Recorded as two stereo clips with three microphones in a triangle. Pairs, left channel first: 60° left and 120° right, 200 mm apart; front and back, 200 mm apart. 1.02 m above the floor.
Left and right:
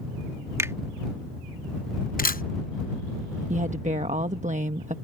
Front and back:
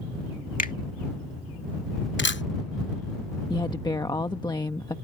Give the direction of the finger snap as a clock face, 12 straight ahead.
1 o'clock.